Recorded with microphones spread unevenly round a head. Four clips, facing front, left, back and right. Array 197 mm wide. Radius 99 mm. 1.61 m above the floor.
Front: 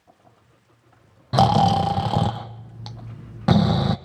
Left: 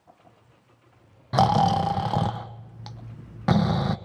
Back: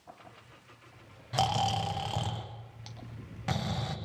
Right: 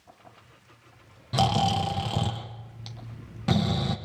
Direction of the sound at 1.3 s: 10° left.